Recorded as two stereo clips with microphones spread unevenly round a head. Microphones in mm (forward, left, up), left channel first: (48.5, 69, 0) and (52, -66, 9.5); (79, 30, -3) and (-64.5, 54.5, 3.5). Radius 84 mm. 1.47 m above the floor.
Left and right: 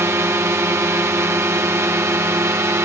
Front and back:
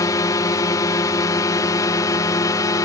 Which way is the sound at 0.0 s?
35° right.